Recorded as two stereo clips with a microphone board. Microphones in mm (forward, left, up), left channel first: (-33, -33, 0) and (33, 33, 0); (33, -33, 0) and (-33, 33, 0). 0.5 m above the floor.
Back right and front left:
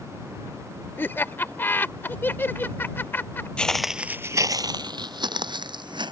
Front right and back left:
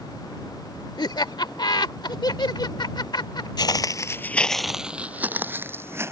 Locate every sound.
1.0 s laughter: 75° right
3.6 s footsteps: 60° right; by 6.1 s 75° left